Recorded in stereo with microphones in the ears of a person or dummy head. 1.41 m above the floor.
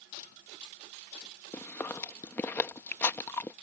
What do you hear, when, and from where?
1.5 s chewing: 10° left (ahead or behind)